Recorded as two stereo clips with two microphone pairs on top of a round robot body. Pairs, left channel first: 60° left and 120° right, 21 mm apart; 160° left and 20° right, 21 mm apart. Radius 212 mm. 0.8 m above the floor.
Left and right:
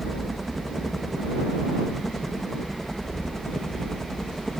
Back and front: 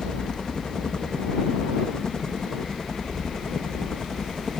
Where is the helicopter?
140° left; by 4.6 s 115° left.